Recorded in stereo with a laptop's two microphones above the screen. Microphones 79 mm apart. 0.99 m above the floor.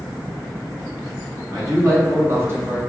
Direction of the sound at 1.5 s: 40° right (ahead or behind).